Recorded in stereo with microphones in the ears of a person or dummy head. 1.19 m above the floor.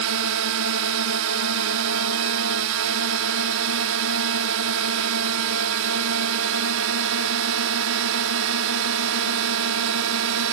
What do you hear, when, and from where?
0.0 s a drone: 70° right (ahead or behind)